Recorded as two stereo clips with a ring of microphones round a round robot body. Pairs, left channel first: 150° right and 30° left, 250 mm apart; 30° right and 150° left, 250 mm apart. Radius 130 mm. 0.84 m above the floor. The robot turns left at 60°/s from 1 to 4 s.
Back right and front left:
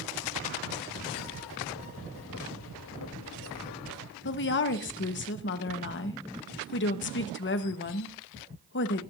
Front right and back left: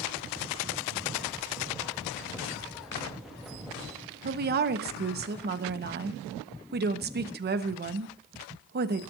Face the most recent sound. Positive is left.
turn(degrees=-175)